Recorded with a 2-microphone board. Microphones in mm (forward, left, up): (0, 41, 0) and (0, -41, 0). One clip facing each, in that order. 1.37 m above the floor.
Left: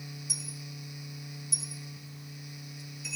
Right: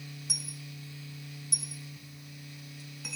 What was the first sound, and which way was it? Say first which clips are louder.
A dropped coin: left 1 dB; 65° right (ahead or behind).